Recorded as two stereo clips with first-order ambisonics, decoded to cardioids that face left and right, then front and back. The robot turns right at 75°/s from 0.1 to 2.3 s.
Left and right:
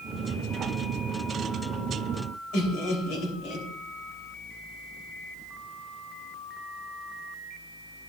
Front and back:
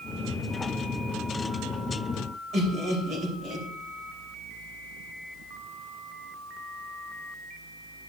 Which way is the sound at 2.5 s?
120° left.